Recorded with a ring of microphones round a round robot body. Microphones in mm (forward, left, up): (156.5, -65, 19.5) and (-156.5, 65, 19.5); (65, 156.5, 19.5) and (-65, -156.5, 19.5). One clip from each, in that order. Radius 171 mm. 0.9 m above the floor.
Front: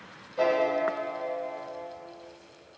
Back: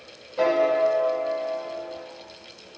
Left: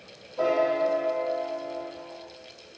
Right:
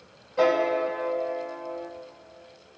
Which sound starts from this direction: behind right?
A piano, at 0.4 s.